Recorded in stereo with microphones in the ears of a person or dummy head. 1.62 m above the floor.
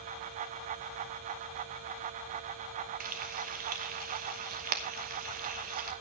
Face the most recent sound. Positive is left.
turn(degrees=-45)  # may be behind; listen again after turning